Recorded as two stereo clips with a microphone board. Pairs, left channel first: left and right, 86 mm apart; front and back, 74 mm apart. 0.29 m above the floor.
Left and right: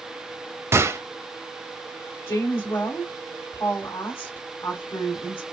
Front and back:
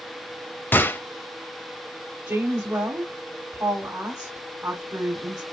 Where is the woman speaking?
150° left, 1.5 m.